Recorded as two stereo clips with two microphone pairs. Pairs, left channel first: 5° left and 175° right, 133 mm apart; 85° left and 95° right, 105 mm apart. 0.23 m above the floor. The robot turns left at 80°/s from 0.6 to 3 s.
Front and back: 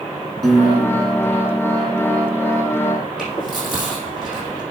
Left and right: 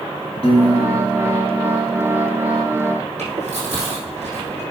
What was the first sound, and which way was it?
A piano, 95° left.